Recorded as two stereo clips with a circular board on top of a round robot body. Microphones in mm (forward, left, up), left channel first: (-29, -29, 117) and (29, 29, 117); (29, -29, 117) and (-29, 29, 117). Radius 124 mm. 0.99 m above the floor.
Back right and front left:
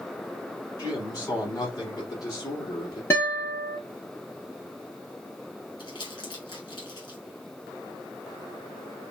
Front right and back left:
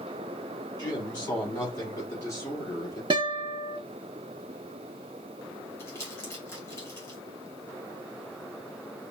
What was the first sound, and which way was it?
A man speaking, 90° right.